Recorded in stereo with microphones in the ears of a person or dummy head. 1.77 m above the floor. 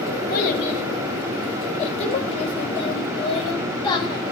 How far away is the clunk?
No clunk in this recording.